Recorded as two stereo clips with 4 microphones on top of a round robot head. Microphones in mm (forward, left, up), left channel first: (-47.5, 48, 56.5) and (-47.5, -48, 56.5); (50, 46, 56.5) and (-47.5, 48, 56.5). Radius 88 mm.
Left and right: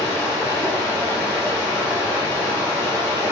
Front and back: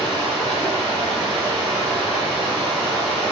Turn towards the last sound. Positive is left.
turn(degrees=150)